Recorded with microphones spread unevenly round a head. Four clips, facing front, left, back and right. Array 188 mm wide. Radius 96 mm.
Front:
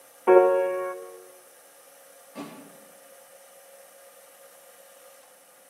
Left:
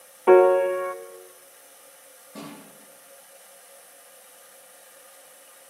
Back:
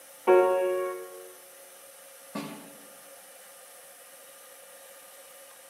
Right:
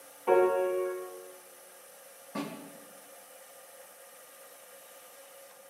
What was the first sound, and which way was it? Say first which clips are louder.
A piano: left 9 dB, front 3 dB; 75° left.